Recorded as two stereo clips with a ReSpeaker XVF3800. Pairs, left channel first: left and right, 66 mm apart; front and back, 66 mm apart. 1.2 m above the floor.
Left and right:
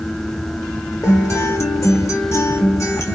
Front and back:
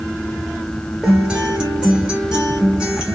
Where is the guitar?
110° left, 1.2 m.